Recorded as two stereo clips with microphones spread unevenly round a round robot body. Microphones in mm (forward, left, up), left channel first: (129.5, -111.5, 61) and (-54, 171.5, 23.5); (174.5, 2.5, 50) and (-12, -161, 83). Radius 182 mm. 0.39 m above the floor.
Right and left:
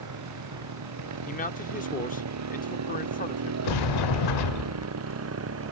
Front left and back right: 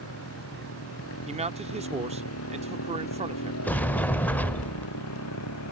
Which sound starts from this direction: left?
A motorcycle, at 0.0 s.